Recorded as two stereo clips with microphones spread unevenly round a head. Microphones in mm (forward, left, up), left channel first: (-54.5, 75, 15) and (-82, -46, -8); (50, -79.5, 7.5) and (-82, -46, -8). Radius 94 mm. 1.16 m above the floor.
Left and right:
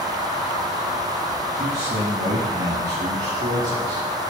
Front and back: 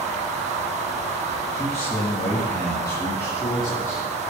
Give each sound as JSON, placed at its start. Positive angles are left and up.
{"t": 1.5, "sound": "a man speaking", "azimuth_deg": -85, "distance_m": 2.0}